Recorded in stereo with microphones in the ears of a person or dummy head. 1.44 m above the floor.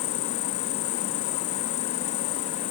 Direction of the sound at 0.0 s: 70° left (ahead or behind).